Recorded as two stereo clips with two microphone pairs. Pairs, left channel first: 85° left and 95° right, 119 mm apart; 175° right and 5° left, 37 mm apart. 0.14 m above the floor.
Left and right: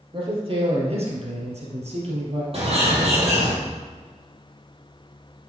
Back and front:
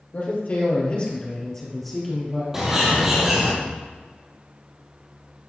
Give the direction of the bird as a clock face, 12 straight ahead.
2 o'clock.